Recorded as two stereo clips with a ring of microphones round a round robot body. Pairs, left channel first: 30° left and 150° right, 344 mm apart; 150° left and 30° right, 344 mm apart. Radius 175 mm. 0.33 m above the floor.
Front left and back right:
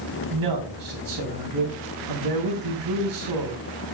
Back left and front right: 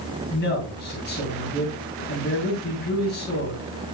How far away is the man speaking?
About 3 m.